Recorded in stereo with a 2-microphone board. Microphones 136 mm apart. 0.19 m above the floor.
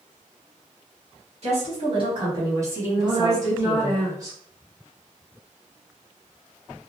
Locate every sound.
1.4 s a woman speaking: 50° right (ahead or behind), 1.7 m; by 4.0 s 25° left (ahead or behind), 1.2 m
3.0 s a woman speaking: 25° right (ahead or behind), 1.2 m